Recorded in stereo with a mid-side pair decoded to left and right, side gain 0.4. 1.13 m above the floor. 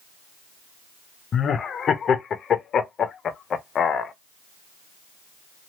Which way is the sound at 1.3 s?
60° left.